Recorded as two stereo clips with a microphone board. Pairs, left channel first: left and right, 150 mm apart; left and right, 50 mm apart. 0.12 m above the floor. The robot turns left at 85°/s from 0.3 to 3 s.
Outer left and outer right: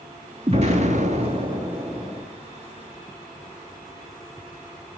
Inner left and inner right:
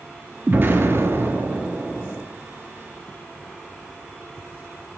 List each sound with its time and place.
0.5 s an explosion: 55° right, 1.6 m; by 2.2 s 160° left, 1.6 m